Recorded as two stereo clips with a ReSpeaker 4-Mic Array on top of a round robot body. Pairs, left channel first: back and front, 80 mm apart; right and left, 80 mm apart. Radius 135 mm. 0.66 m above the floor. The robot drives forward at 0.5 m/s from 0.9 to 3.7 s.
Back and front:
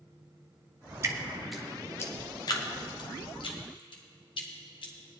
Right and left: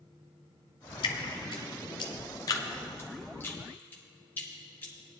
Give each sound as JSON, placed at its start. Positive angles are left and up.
{"t": 1.0, "sound": "dripping", "azimuth_deg": -60, "distance_m": 0.5}